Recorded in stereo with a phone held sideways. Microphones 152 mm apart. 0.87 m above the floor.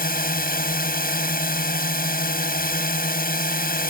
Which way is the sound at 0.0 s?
75° left (ahead or behind).